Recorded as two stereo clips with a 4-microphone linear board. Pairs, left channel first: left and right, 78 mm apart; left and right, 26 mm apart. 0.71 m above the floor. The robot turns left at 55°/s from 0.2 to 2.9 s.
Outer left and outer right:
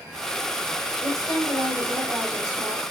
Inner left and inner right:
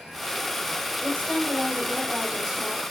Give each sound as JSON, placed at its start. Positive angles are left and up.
{"t": 1.0, "sound": "a woman speaking", "azimuth_deg": 65, "distance_m": 4.0}